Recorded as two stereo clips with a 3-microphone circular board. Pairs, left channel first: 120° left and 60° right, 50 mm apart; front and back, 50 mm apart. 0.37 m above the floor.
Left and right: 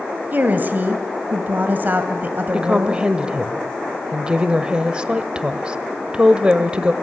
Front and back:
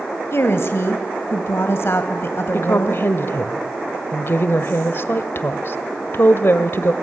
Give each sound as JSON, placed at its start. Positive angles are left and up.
{"t": 0.3, "sound": "a woman speaking", "azimuth_deg": -15, "distance_m": 1.8}
{"t": 2.5, "sound": "a woman speaking", "azimuth_deg": 5, "distance_m": 1.3}